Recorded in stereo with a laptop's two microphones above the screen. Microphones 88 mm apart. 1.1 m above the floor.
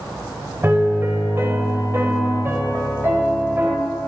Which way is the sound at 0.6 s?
25° right (ahead or behind).